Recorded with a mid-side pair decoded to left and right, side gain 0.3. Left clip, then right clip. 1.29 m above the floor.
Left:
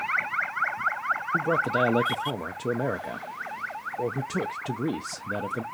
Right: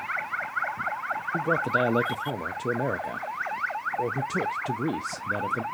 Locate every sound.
1.3 s a man speaking: 5° right, 0.5 m